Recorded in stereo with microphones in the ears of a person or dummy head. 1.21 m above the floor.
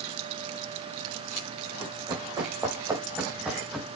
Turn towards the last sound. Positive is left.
turn(degrees=10)  # may be behind; listen again after turning